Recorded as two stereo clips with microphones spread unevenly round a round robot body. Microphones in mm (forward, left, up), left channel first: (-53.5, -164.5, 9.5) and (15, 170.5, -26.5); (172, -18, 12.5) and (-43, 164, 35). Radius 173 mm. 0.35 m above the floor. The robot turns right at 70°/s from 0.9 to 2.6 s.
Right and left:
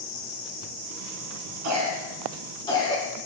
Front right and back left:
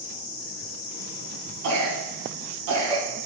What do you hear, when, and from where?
1.6 s a cough: 115° left, 3.5 m; by 3.0 s straight behind, 3.5 m